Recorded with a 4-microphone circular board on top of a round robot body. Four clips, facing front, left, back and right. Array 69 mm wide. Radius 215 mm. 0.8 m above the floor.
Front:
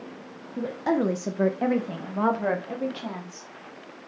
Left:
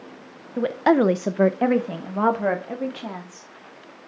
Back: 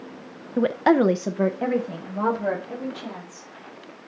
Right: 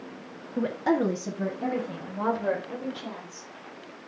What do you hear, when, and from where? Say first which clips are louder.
0.6 s a woman speaking: left 6 dB, back 7 dB; 165° left, 0.7 m; by 3.5 s 65° left, 2.5 m